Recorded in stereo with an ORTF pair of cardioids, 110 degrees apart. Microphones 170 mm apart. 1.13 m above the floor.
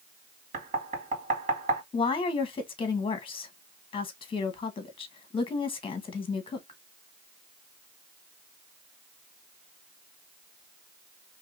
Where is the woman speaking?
30° left, 1.3 m.